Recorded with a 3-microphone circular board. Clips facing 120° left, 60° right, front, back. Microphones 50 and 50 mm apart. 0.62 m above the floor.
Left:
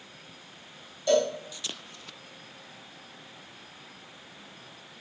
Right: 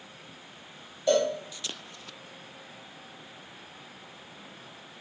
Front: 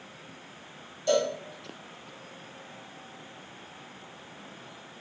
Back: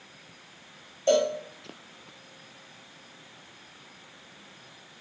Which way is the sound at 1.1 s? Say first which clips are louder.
Even, back 3 dB; 135° right.